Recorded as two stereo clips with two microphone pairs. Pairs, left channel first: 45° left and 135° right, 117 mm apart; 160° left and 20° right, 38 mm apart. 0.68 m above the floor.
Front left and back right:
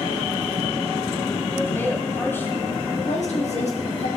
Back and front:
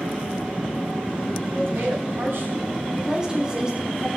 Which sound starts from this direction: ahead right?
A man speaking, at 1.5 s.